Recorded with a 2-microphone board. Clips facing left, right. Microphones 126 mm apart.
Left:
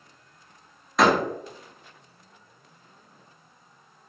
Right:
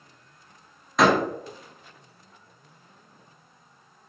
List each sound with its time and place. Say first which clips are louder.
1.0 s a door slam: even; centre (ahead or behind), 0.7 m